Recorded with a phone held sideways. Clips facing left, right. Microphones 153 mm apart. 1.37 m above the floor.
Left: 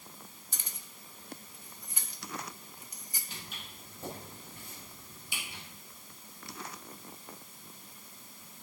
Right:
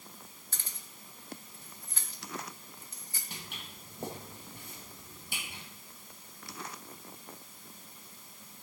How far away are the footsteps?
About 2.5 m.